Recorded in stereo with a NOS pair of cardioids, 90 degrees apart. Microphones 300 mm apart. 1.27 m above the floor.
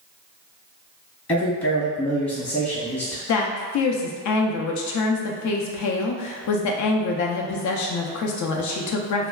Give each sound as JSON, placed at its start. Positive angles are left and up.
{"t": 1.3, "sound": "a man speaking", "azimuth_deg": 20, "distance_m": 0.8}
{"t": 3.3, "sound": "a woman speaking", "azimuth_deg": 65, "distance_m": 0.6}